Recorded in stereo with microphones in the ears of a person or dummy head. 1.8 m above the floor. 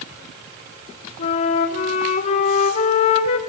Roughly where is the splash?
No splash in this recording.